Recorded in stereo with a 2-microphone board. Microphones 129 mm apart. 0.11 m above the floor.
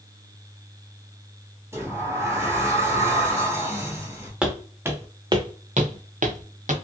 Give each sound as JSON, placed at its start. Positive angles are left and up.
{"t": 1.7, "sound": "a sliding door", "side_deg": -20, "distance_m": 1.0}
{"t": 4.4, "sound": "footsteps", "side_deg": -5, "distance_m": 1.1}